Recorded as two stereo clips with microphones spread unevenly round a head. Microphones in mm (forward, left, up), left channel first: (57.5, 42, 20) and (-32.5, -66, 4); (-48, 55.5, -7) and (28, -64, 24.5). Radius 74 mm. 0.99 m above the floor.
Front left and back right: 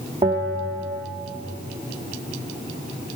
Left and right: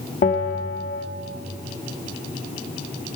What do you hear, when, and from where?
0.2 s a bell: 160° left, 0.9 m